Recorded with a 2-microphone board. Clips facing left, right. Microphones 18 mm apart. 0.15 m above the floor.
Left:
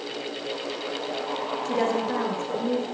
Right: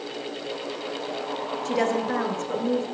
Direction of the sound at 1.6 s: 30° right (ahead or behind).